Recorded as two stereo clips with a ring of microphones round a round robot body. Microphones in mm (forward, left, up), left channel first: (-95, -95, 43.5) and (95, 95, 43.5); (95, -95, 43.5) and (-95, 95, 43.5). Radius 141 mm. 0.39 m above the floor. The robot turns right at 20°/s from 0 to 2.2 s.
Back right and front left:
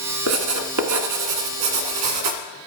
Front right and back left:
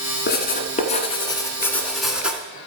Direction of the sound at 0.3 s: 10° left.